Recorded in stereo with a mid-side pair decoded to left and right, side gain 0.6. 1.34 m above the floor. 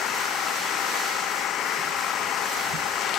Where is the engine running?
55° left.